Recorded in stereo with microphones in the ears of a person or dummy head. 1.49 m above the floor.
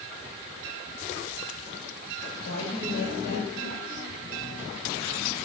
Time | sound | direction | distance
2.4 | a woman speaking | 60° left (ahead or behind) | 8 m